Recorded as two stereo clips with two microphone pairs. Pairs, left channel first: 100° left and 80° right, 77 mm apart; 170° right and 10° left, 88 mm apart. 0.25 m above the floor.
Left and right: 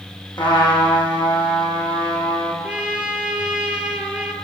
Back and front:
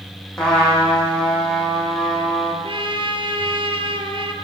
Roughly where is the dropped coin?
I don't hear a dropped coin.